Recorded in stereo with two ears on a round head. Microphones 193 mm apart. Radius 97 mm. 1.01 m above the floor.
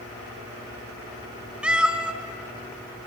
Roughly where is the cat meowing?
Centre.